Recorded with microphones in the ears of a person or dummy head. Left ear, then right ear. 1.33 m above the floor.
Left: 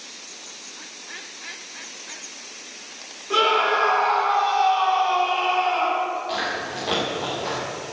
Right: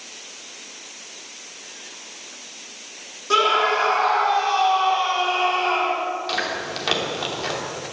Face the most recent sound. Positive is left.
turn(degrees=-55)  # may be behind; listen again after turning